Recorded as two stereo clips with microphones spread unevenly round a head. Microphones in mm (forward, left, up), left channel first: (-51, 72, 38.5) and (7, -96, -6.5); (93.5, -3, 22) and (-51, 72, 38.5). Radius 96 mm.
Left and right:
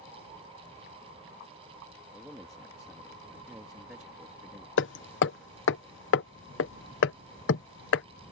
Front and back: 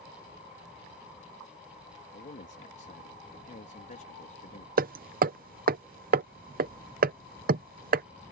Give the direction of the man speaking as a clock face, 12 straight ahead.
11 o'clock.